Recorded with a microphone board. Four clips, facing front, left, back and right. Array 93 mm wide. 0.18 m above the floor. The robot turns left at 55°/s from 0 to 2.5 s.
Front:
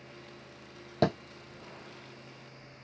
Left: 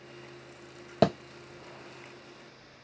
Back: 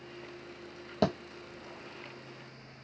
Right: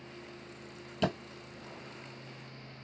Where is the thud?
90° left, 1.1 m; by 1.2 s 85° left, 1.1 m.